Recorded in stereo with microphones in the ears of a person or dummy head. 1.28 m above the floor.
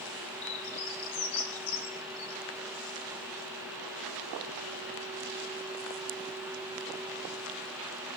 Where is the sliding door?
No sliding door in this recording.